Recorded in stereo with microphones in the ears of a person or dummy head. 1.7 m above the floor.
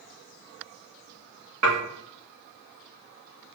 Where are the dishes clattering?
45° right (ahead or behind), 1.5 m.